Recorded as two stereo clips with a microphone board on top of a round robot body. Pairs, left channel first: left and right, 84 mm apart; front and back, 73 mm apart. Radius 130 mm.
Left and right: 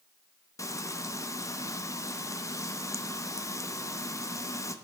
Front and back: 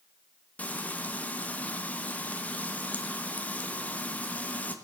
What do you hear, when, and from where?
0.6 s frying: 60° left, 1.3 m